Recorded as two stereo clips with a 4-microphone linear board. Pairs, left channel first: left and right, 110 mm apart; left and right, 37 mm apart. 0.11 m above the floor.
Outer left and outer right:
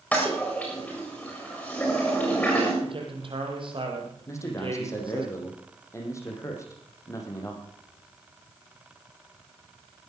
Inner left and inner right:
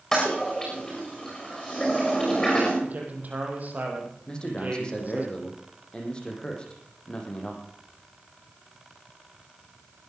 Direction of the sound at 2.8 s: 50° right (ahead or behind).